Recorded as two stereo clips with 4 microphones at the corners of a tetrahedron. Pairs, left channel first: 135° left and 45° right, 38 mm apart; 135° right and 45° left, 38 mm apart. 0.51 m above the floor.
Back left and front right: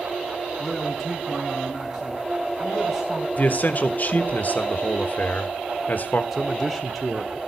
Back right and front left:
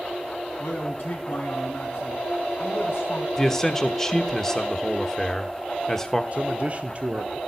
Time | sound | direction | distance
0.6 | a man speaking | 125° right | 5 m
3.4 | a man speaking | 150° left | 1.0 m
6.3 | a man speaking | 30° left | 0.8 m